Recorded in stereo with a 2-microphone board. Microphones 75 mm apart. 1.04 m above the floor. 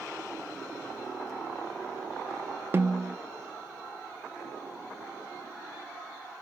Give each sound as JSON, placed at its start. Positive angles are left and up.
{"t": 2.7, "sound": "a snare drum", "side_deg": -30, "distance_m": 0.7}